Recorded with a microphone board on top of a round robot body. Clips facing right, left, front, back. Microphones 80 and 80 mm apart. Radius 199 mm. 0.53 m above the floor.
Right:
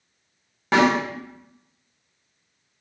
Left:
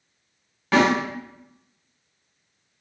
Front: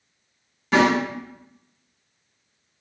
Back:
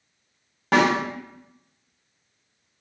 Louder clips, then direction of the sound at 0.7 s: Right 1 dB, front 1 dB; 155° right.